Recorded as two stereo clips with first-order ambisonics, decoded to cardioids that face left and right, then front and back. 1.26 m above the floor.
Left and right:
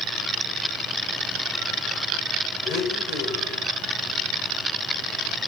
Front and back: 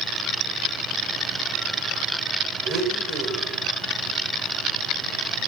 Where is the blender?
135° left, 4 m.